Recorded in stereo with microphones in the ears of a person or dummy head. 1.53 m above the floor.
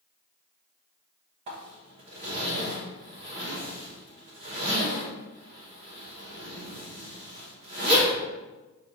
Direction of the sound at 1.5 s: 35° right (ahead or behind).